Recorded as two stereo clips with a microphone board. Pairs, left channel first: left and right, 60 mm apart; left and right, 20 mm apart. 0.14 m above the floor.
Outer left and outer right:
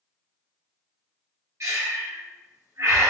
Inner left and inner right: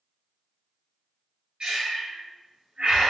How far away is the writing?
No writing in this recording.